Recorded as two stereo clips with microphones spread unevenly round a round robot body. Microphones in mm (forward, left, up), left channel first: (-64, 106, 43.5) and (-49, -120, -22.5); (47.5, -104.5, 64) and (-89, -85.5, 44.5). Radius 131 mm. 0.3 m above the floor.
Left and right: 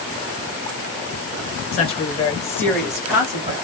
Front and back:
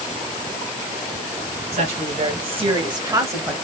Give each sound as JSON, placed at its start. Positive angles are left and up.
{"t": 1.7, "sound": "a woman speaking", "azimuth_deg": 160, "distance_m": 2.5}